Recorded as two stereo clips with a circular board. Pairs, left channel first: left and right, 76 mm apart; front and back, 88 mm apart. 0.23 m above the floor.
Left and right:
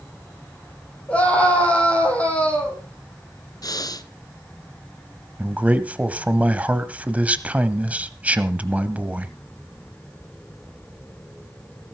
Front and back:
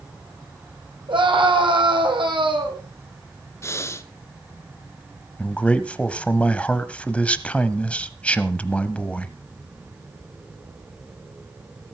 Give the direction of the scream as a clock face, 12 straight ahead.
7 o'clock.